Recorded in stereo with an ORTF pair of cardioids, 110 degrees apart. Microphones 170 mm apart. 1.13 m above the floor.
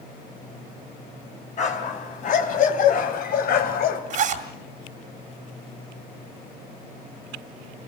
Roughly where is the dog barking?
Ahead left.